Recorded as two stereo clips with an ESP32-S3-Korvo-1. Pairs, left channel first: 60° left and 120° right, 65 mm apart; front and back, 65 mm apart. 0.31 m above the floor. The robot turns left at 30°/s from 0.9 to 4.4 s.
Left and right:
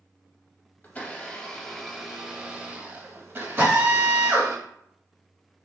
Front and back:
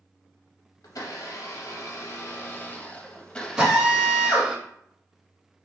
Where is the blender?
Straight ahead, 0.5 m; by 4.6 s 105° right, 0.5 m.